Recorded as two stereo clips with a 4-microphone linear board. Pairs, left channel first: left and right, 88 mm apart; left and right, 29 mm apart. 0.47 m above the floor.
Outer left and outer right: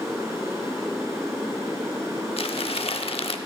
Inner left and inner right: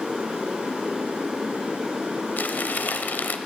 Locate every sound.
0.0 s running water: 30° right (ahead or behind), 4 m
2.4 s crumpling: 85° left, 0.7 m